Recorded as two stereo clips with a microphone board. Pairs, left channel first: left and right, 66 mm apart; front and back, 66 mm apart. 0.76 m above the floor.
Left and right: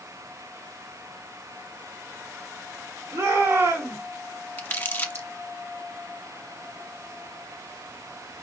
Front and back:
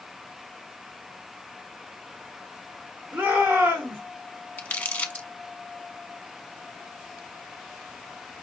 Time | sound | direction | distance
3.1 | a shout | 135° right | 2 m
4.6 | crumpling | 50° left | 1.2 m